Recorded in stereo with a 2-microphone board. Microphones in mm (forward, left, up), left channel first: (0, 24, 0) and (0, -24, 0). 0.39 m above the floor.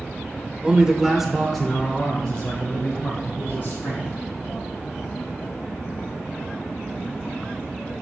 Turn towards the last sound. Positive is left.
turn(degrees=30)  # may be behind; listen again after turning